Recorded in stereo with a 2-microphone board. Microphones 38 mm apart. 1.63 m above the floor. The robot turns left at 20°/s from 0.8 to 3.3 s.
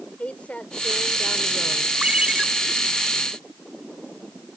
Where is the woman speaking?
35° left (ahead or behind); by 1.9 s 15° left (ahead or behind).